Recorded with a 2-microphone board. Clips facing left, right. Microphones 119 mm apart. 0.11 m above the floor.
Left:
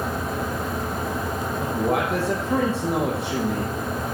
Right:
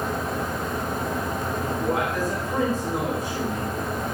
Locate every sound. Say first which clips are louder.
1.6 s a man speaking: left 3 dB; 70° left (ahead or behind), 4.5 m